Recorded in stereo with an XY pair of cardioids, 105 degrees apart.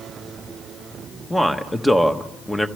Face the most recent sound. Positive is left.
turn(degrees=10)